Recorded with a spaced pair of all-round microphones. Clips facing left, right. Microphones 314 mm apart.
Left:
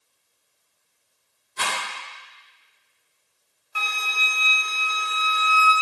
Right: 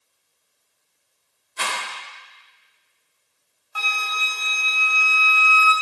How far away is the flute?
About 2 m.